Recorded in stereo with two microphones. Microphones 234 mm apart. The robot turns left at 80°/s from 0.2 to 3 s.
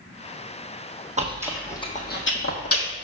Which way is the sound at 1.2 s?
30° right (ahead or behind).